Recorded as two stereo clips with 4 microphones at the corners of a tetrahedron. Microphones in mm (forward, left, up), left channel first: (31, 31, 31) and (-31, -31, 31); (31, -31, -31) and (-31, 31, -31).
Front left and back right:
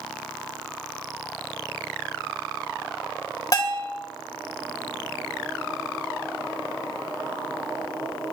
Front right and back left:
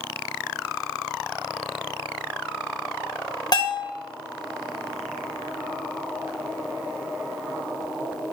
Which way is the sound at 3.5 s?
5° right.